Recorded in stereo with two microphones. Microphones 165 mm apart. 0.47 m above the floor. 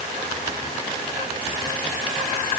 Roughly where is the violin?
I don't hear a violin.